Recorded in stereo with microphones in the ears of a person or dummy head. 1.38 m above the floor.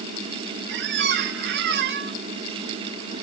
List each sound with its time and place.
0.7 s a squeak: 65° right (ahead or behind), 0.9 m